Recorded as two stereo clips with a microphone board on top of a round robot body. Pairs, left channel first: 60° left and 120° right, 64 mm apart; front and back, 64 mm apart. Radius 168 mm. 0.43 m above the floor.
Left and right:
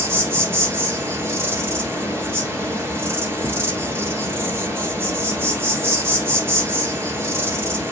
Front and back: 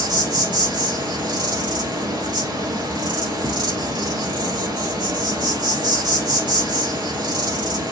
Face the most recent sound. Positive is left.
turn(degrees=-175)